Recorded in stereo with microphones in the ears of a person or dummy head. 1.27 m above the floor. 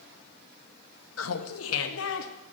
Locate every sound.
1.2 s laughter: 85° left, 1.5 m; by 2.3 s 75° left (ahead or behind), 2.5 m